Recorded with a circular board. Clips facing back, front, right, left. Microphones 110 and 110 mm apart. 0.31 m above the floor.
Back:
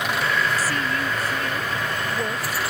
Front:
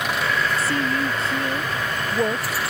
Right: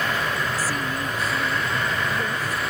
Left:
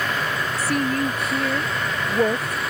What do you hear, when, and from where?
0.6 s a woman speaking: 65° left